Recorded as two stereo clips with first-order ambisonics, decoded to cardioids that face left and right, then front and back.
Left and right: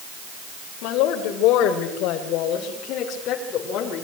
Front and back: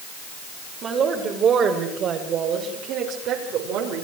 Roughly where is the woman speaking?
Behind left.